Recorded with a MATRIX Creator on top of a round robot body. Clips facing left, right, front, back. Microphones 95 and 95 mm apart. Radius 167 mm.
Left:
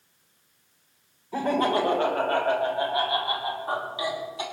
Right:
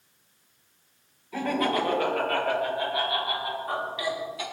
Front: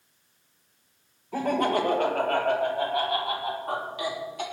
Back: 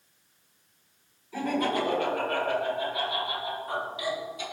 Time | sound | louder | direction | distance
1.3 | laughter | left 3 dB, front 3 dB | 35° left | 2.5 m